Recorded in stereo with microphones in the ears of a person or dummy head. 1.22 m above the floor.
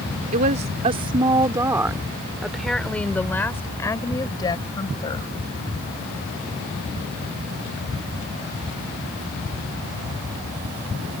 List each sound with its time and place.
0.3 s a woman speaking: 40° right (ahead or behind); by 5.3 s 25° left (ahead or behind)